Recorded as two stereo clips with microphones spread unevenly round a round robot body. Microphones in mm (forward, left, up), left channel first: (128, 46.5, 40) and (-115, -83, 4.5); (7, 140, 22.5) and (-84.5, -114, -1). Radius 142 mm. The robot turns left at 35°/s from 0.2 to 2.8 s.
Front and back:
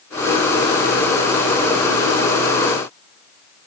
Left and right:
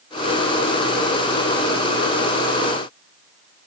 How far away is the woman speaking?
No woman speaking in this recording.